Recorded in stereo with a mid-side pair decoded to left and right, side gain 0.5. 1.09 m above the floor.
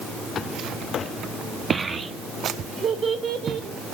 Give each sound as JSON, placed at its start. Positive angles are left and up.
{"t": 1.7, "sound": "a child speaking", "azimuth_deg": -25, "distance_m": 0.6}